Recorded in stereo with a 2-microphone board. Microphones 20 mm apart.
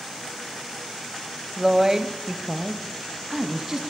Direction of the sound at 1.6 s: 20° right (ahead or behind).